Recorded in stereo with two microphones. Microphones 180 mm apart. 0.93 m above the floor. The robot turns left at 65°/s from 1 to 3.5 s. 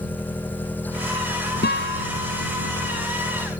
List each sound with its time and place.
0.0 s an engine running: 170° left; by 3.6 s 10° left
1.6 s a guitar: 65° left (ahead or behind); by 2.1 s 85° left